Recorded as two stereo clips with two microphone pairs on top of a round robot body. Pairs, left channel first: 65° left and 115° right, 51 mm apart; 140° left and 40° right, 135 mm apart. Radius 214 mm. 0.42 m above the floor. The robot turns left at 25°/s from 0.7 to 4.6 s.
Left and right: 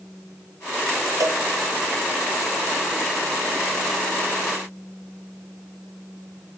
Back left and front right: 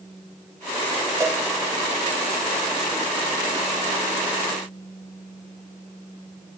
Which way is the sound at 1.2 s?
110° right.